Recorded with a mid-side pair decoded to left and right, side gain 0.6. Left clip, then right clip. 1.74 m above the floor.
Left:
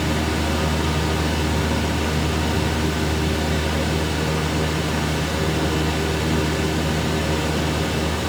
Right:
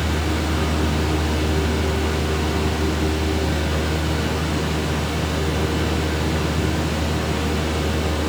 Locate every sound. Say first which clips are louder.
0.0 s a fan: left 1 dB; 25° left, 2 m